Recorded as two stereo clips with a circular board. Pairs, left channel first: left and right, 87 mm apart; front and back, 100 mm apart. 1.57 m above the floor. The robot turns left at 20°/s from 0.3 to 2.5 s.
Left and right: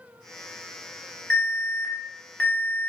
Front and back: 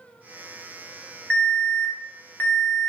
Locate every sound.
1.3 s an alarm: 70° left, 0.6 m; by 2.9 s 45° left, 0.6 m